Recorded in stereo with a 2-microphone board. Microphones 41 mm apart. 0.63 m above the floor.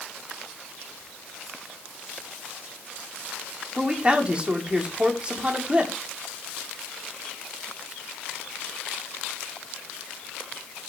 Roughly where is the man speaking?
Right.